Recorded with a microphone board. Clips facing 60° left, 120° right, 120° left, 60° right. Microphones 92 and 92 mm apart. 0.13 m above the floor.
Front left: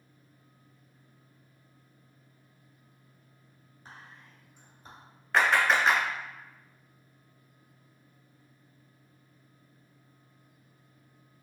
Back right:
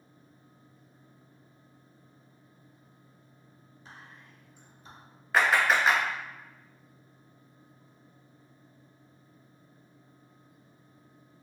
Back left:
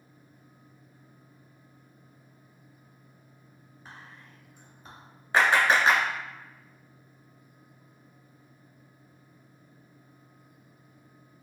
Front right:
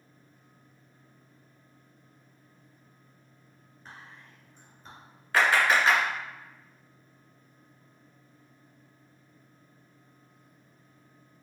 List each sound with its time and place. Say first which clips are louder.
3.9 s whispering: front left 1 dB, even; 40° left, 1.7 m
5.3 s a clap: even, back left 1 dB; 155° left, 0.9 m